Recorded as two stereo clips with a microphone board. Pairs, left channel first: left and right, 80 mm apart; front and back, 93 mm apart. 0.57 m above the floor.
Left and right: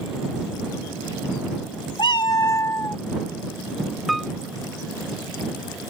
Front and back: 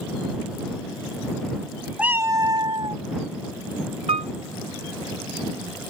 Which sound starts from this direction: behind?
A piano, at 4.1 s.